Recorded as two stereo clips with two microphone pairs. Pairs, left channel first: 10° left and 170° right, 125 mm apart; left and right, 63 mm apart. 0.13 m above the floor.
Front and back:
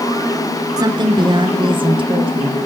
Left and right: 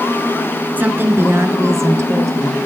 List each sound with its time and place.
0.8 s a woman speaking: 135° right, 1.3 m; by 2.6 s 125° right, 3 m